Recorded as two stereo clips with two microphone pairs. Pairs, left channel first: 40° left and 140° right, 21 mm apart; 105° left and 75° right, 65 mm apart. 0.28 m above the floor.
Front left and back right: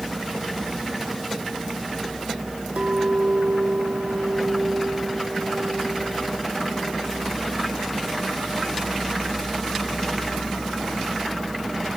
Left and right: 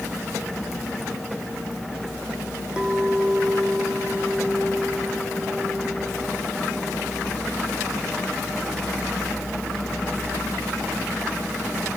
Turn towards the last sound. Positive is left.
turn(degrees=-150)